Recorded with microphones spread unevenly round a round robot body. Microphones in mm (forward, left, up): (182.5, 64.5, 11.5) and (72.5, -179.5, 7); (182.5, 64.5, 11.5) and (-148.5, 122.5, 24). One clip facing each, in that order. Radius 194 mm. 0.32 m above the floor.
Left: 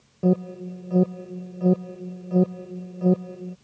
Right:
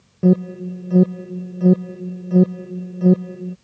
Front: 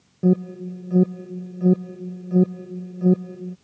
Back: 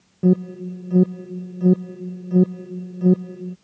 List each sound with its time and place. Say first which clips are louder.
0.2 s an alarm: right 6 dB, back 1 dB; 105° right